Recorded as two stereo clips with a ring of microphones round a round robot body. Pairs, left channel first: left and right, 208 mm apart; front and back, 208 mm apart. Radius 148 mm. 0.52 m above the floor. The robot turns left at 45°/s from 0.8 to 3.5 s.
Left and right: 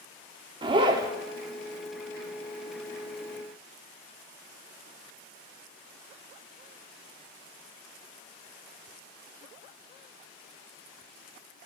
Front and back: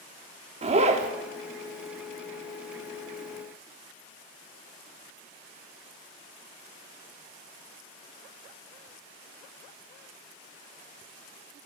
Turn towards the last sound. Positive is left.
turn(degrees=95)